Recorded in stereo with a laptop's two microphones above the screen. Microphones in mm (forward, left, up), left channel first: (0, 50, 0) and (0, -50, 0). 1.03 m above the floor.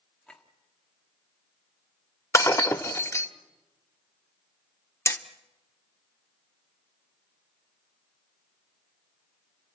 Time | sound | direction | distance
0.3 | a clink | 10° left (ahead or behind) | 1.8 m
2.3 | breaking glass | 30° left (ahead or behind) | 0.9 m
5.1 | hammering | 30° left (ahead or behind) | 0.8 m